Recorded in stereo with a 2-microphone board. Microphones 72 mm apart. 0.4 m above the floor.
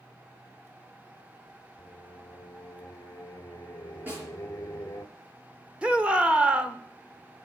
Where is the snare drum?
25° right (ahead or behind), 5 m.